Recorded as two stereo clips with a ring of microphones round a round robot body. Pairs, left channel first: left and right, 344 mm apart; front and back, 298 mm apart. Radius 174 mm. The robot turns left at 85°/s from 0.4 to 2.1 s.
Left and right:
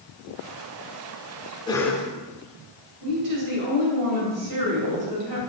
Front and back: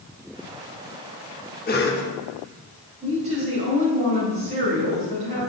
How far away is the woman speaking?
About 2.5 m.